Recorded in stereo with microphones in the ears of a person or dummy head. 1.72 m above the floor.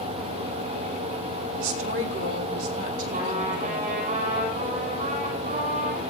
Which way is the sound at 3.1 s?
45° right (ahead or behind).